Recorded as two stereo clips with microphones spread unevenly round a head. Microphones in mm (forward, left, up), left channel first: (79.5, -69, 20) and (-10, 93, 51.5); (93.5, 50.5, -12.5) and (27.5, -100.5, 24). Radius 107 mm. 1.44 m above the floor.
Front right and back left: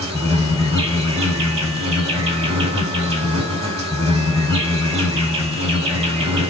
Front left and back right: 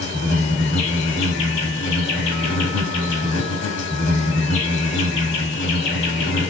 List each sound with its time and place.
0.0 s an insect: 70° left, 2 m